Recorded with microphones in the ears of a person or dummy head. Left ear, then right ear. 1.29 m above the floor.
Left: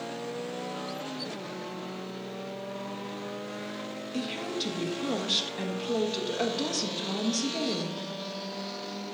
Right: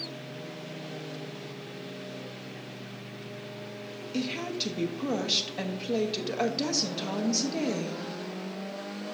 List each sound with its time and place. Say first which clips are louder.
4.1 s a woman speaking: right 1 dB; 20° right (ahead or behind), 1.1 m